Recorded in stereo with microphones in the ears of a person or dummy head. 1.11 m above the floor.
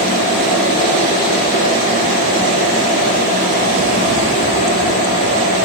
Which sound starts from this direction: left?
A fan, at 0.0 s.